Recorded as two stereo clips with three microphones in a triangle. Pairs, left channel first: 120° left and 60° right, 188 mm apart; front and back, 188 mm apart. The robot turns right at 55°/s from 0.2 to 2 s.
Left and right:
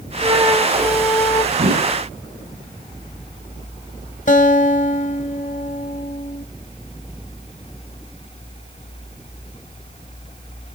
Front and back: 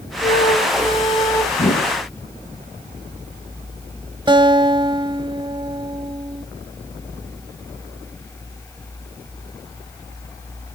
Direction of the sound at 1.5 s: 45° right.